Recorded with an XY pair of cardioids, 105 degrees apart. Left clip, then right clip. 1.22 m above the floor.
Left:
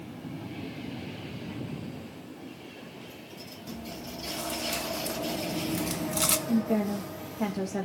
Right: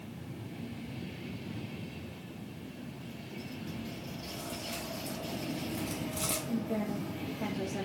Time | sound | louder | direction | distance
3.7 | chewing | left 3 dB | 60° left | 0.9 m
6.5 | a woman speaking | left 7 dB | 50° left | 1.3 m